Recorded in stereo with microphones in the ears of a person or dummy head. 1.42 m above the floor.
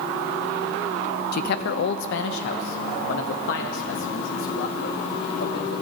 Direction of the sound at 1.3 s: 55° left (ahead or behind).